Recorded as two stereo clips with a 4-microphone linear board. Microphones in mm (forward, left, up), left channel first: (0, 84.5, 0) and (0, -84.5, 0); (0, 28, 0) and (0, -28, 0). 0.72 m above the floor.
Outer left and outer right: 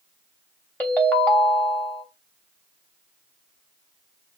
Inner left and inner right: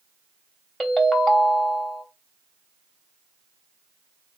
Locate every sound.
0.8 s a ringtone: 10° left (ahead or behind), 0.9 m